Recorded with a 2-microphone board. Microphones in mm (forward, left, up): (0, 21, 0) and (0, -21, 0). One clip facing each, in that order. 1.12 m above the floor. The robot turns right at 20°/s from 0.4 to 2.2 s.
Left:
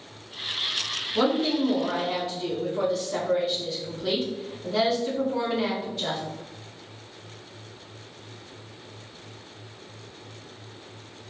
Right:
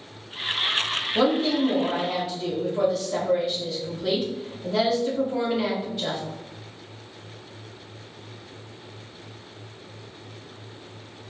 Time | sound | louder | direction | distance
1.1 | a woman speaking | right 1 dB | 20° right (ahead or behind) | 1.5 m